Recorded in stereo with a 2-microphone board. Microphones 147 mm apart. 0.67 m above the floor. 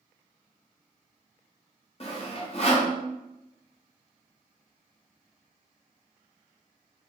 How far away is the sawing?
About 0.5 m.